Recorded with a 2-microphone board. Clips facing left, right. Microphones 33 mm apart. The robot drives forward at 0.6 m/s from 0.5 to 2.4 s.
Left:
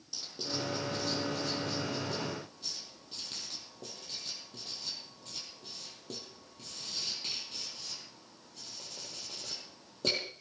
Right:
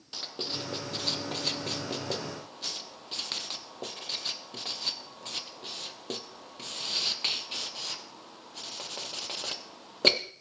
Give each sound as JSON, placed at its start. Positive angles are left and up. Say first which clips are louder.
{"t": 0.1, "sound": "writing", "louder": "right 2 dB", "side_deg": -50, "distance_m": 1.1}